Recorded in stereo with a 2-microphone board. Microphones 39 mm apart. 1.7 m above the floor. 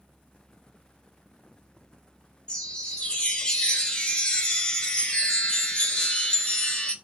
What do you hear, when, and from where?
2.5 s a chime: 20° left (ahead or behind), 0.6 m